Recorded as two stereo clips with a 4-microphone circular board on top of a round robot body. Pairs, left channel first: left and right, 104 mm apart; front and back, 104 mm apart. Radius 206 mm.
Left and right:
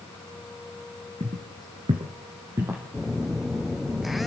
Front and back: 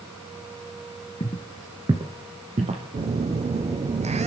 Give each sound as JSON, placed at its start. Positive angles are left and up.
{"t": 1.2, "sound": "footsteps", "azimuth_deg": -40, "distance_m": 0.7}
{"t": 2.9, "sound": "a phone buzzing", "azimuth_deg": 180, "distance_m": 1.0}